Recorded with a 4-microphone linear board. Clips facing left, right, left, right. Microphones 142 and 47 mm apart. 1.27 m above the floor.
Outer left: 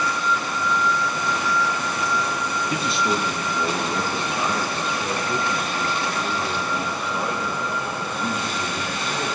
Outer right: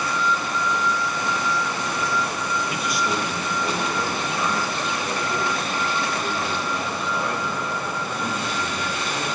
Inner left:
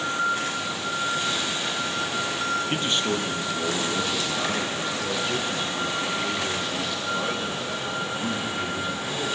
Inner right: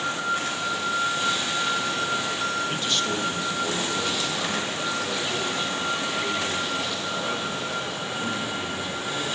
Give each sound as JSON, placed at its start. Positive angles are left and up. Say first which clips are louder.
{"t": 2.7, "sound": "a man speaking", "louder": "outer left 5 dB, inner left 1 dB", "side_deg": 35, "distance_m": 0.6}